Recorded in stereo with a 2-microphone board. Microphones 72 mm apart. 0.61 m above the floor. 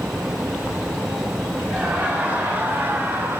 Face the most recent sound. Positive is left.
turn(degrees=-30)  # may be behind; listen again after turning